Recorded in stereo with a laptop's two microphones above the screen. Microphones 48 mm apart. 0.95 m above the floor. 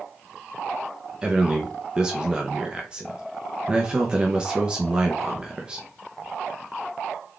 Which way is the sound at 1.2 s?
20° right (ahead or behind).